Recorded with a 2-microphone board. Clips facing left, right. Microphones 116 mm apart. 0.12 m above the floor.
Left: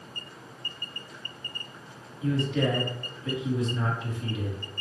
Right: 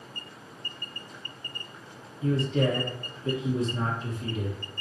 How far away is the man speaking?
About 1.4 m.